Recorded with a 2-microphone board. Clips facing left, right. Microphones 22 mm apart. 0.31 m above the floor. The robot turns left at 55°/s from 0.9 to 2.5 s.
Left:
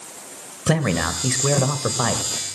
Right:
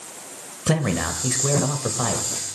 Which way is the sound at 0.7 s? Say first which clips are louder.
Left 2 dB; 15° left (ahead or behind).